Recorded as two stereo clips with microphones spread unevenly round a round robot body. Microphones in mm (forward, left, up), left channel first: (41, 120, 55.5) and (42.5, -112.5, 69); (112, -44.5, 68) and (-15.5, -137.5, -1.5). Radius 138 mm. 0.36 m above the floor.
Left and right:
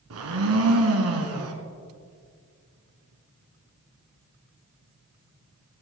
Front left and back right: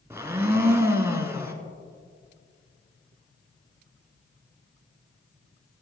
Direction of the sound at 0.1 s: 70° right.